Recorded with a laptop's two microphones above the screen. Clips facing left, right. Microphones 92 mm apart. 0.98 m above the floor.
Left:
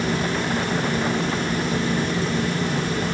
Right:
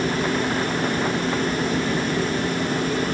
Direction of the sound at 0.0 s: 45° right (ahead or behind).